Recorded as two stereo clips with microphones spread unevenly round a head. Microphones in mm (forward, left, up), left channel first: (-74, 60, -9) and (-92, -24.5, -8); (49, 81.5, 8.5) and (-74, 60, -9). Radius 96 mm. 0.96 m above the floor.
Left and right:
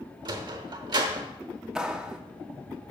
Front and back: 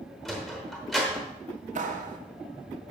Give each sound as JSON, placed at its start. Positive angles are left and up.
{"t": 0.2, "sound": "a sliding door", "azimuth_deg": -70, "distance_m": 0.9}
{"t": 1.8, "sound": "a clap", "azimuth_deg": 175, "distance_m": 1.4}